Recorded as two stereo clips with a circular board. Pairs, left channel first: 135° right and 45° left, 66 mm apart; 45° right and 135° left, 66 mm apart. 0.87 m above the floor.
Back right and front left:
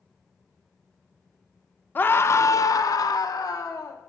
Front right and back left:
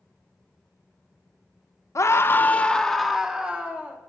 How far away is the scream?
About 0.7 m.